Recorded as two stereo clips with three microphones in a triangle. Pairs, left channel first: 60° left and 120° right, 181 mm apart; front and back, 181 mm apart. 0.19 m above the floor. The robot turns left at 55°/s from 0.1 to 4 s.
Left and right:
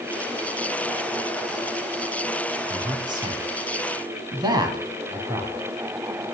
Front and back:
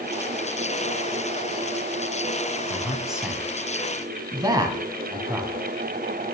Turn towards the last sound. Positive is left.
turn(degrees=-145)